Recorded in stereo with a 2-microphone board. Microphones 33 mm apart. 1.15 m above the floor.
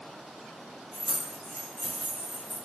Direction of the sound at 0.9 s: 65° right (ahead or behind).